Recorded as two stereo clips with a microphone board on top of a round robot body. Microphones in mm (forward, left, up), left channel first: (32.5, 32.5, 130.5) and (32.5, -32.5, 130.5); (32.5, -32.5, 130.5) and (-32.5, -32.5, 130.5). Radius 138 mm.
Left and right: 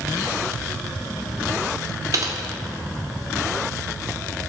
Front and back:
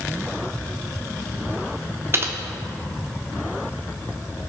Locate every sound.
2.1 s typing on a keyboard: 130° right, 1.2 m